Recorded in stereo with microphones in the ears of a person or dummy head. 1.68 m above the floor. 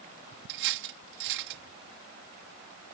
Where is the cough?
No cough in this recording.